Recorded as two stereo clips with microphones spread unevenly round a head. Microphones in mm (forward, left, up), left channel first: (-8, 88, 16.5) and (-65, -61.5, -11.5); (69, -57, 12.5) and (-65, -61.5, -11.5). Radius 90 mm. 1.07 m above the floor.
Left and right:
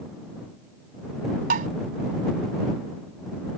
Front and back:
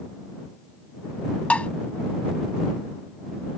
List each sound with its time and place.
1.5 s tapping: 65° right